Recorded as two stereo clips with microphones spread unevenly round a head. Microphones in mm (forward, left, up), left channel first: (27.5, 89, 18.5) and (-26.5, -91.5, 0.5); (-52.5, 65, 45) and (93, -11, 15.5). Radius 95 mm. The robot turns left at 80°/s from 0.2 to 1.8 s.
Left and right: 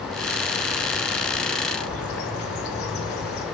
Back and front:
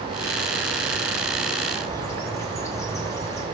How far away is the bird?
About 2 m.